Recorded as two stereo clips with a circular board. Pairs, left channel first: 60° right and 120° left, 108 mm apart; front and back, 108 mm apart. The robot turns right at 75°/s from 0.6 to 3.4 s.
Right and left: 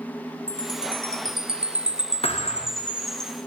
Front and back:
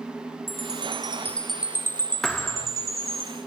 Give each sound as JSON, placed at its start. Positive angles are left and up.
{"t": 0.5, "sound": "a chime", "azimuth_deg": 20, "distance_m": 1.9}
{"t": 2.2, "sound": "a thud", "azimuth_deg": -85, "distance_m": 3.0}